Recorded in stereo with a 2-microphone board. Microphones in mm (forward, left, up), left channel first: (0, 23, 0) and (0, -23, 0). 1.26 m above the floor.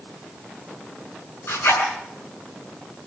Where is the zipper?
65° left (ahead or behind), 7 m.